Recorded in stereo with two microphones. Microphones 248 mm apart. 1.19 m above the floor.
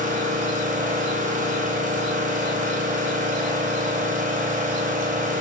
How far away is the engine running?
About 3 m.